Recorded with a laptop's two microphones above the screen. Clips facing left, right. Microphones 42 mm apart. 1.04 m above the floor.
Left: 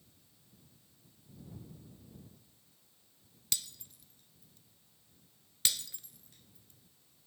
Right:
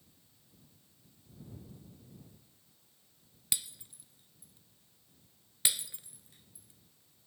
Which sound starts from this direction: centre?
Breaking glass, at 3.5 s.